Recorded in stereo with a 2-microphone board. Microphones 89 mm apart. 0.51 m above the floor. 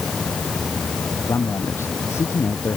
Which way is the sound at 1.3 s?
35° left (ahead or behind).